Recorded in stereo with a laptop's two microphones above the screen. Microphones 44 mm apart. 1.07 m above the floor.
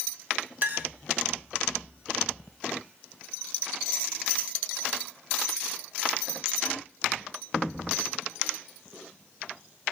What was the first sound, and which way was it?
A clink, 40° right (ahead or behind).